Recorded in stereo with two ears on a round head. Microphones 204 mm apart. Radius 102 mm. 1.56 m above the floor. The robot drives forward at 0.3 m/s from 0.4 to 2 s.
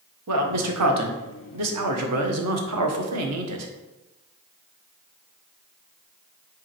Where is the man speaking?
75° right (ahead or behind), 1.6 m; by 3.7 s 80° right, 1.6 m.